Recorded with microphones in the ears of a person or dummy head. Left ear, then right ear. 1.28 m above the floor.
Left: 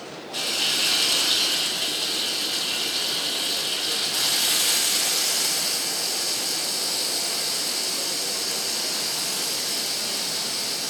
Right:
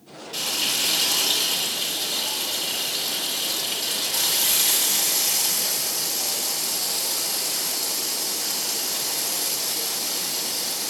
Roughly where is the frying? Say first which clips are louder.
Left 1 dB; right.